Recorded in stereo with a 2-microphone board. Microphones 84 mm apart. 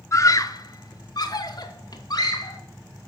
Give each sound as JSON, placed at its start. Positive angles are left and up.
{"t": 0.1, "sound": "a scream", "side_deg": 35, "distance_m": 0.8}